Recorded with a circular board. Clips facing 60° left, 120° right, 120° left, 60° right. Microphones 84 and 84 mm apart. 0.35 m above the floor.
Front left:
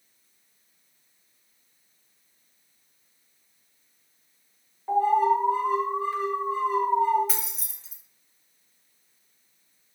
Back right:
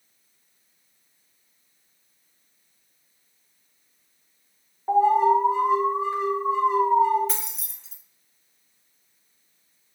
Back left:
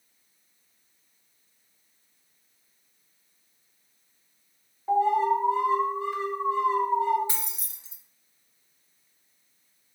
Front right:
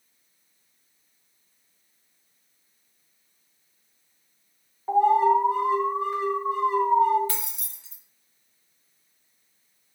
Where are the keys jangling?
140° left, 0.6 m.